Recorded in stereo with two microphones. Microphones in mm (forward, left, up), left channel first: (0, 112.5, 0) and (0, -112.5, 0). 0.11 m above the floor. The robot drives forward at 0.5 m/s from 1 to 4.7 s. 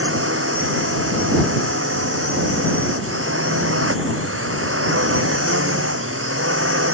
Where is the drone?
70° right (ahead or behind).